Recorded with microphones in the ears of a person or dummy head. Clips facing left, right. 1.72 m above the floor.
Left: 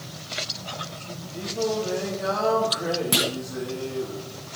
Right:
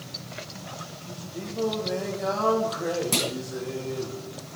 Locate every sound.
1.3 s singing: centre (ahead or behind), 3 m
3.1 s a clunk: 10° left (ahead or behind), 0.6 m